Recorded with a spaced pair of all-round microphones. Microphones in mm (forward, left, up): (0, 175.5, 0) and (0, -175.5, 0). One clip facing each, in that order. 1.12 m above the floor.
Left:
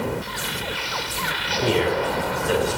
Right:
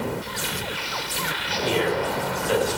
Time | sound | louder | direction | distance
1.6 | a man speaking | left 2 dB | 65° left (ahead or behind) | 6 m